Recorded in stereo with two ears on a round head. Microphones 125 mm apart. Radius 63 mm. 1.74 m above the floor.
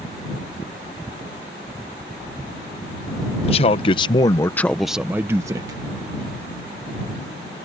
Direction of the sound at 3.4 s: 45° left (ahead or behind).